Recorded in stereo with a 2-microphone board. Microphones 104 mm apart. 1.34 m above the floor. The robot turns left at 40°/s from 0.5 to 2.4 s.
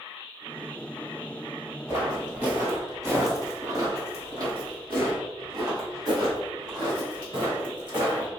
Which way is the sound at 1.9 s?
20° right (ahead or behind).